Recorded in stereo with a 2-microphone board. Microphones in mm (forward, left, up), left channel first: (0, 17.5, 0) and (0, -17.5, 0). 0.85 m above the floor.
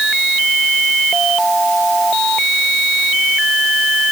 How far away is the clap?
No clap in this recording.